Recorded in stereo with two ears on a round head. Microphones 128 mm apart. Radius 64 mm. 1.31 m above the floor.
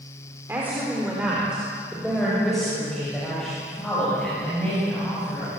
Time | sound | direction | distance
0.5 | a woman speaking | 15° right (ahead or behind) | 4.5 m